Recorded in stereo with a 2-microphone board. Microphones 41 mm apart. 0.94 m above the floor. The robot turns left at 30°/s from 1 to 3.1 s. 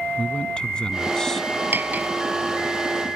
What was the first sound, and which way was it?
A man speaking, 20° left (ahead or behind).